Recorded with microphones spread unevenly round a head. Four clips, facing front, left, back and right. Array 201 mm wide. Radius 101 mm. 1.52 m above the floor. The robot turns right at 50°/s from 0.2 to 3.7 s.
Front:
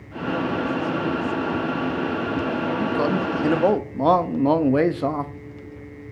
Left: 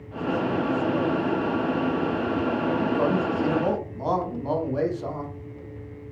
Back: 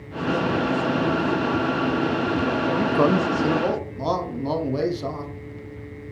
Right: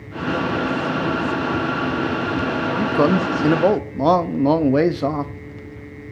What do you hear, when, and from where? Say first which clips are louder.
2.8 s a man speaking: right 9 dB, back 4 dB; 115° right, 0.7 m; by 5.3 s 65° right, 0.7 m